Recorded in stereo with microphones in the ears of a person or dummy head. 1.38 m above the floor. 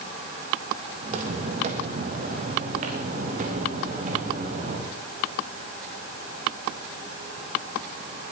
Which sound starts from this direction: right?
Footsteps, at 1.0 s.